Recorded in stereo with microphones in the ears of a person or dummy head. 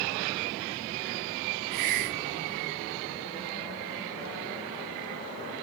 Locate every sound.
1.7 s a hiss: 40° right (ahead or behind), 2.0 m